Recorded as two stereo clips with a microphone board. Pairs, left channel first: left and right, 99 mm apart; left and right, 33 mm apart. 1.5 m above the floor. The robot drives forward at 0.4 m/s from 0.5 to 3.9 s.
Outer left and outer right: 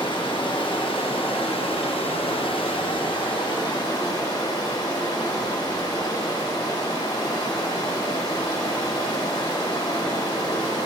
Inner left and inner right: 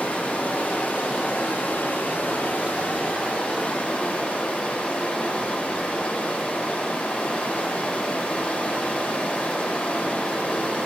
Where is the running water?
55° left (ahead or behind), 1.1 m; by 10.9 s 45° left (ahead or behind), 1.3 m.